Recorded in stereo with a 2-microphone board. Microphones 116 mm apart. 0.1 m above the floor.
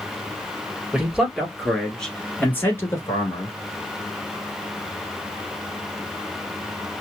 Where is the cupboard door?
I don't hear a cupboard door.